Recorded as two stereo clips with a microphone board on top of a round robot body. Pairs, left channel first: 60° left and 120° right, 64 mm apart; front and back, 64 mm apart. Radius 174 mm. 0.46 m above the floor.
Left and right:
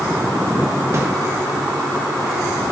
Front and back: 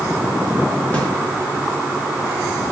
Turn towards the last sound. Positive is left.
turn(degrees=-70)